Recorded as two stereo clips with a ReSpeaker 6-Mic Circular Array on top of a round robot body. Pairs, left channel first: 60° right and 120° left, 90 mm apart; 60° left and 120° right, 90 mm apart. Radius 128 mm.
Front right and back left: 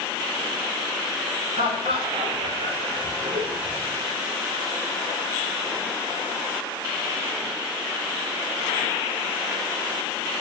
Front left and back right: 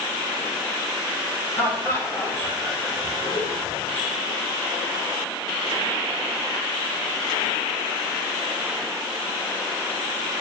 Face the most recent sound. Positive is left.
turn(degrees=100)